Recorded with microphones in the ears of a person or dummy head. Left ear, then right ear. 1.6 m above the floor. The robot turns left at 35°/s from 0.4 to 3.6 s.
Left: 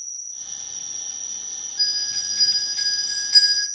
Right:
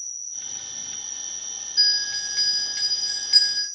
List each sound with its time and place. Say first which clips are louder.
0.0 s an insect: even; 130° right, 0.8 m; by 3.8 s 115° left, 0.8 m
1.8 s a bell: right 2 dB; 110° right, 0.7 m; by 3.6 s 170° right, 0.7 m